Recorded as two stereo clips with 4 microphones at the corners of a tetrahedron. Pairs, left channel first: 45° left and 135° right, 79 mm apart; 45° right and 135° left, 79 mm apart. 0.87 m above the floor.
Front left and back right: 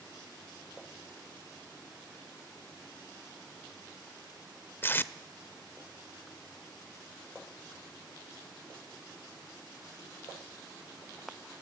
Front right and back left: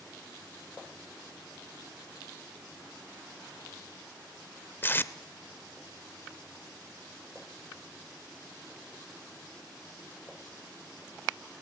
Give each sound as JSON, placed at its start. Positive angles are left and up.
{"t": 4.8, "sound": "tape being pulled", "azimuth_deg": 5, "distance_m": 0.6}